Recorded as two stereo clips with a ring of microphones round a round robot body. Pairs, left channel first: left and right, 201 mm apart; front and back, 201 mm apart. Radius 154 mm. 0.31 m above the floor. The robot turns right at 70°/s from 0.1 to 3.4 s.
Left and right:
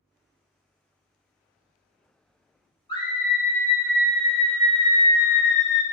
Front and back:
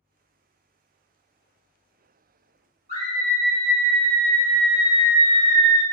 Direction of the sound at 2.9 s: 135° left.